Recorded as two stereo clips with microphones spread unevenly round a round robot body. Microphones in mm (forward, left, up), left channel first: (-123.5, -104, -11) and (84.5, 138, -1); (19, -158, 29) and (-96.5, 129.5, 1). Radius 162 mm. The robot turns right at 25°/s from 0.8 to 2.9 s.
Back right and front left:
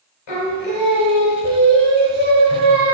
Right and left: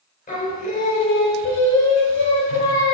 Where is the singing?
135° right, 1.6 m; by 3.0 s 80° right, 1.6 m.